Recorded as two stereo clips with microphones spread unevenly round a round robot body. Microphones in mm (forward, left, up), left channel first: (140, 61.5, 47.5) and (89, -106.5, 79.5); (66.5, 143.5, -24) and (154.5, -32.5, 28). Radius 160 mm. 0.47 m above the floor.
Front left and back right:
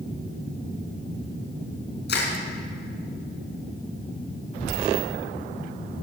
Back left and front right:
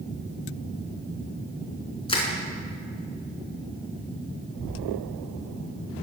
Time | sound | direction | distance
2.1 | crushing | 50° left | 4 m